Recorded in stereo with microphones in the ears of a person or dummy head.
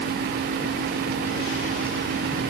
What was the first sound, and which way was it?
Only background noise.